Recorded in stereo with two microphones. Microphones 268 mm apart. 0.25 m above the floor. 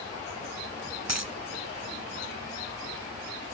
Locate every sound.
1.1 s a dropped coin: 75° right (ahead or behind), 0.6 m